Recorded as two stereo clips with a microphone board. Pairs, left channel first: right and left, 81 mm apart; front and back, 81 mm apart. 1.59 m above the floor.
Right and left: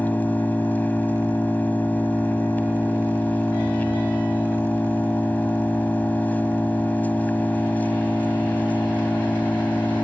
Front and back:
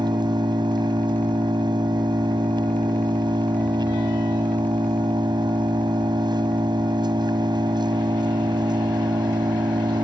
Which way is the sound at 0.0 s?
160° right.